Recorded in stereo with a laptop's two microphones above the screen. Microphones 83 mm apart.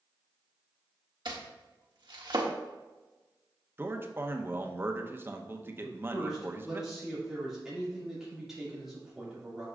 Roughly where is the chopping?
Right.